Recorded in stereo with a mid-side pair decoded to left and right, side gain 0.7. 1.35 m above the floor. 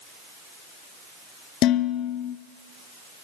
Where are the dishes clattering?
55° left, 1.9 m.